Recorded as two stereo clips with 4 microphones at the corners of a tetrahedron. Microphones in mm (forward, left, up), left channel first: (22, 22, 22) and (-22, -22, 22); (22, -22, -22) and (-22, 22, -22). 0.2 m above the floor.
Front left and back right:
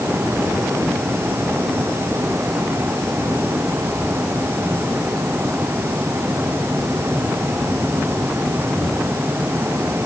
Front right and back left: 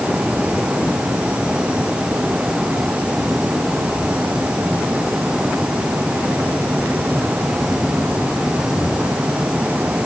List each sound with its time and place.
Only background noise.